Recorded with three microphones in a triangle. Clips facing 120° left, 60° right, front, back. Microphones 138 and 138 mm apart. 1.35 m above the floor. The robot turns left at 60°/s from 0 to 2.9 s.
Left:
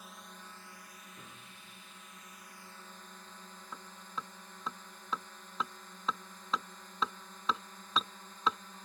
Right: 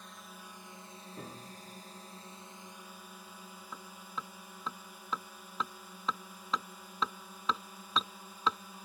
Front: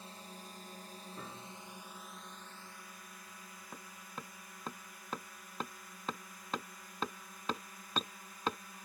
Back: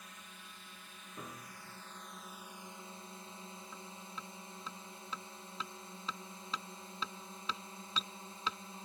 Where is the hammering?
30° left.